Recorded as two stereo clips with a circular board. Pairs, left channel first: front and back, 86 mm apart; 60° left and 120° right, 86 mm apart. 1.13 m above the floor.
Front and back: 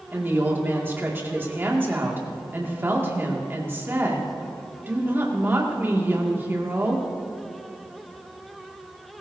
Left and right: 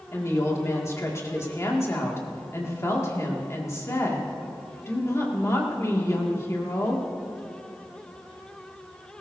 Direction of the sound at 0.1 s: 115° left.